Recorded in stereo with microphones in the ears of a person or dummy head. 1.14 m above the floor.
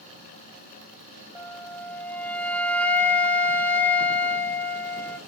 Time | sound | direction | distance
1.4 | a flute | 10° left (ahead or behind) | 0.6 m